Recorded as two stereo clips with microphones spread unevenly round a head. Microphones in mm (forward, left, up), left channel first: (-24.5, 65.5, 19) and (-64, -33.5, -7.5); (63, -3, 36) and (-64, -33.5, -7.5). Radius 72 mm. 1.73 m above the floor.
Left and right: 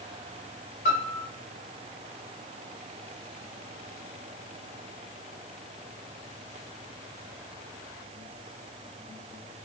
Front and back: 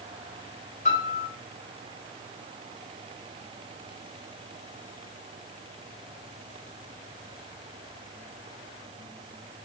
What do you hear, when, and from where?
0.8 s a piano: 55° left, 0.9 m